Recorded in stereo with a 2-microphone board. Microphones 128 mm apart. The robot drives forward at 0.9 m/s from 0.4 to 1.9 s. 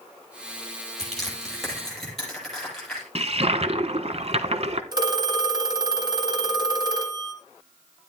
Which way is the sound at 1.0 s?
5° left (ahead or behind).